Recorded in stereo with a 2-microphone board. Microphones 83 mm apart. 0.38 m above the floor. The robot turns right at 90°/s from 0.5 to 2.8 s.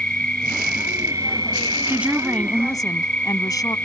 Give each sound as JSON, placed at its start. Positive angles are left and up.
{"t": 0.0, "sound": "an insect", "azimuth_deg": 170}
{"t": 1.9, "sound": "a woman speaking", "azimuth_deg": -30}